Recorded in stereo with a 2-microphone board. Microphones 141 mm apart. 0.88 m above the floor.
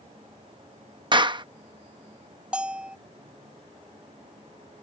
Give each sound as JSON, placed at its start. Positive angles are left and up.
{"t": 1.1, "sound": "a clap", "side_deg": -35}
{"t": 2.5, "sound": "a bell", "side_deg": -5}